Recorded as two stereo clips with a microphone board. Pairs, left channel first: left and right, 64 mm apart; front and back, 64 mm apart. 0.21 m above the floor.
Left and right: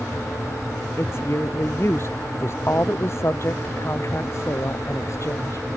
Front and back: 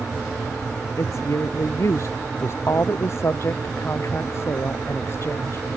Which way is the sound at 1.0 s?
40° left.